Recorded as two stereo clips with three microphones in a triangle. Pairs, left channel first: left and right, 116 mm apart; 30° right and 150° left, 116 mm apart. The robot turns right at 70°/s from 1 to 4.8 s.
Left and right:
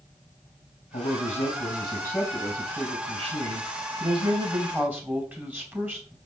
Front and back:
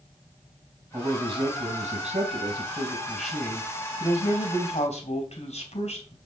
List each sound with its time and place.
0.9 s a man speaking: 80° left, 3.5 m; by 6.2 s 15° right, 3.5 m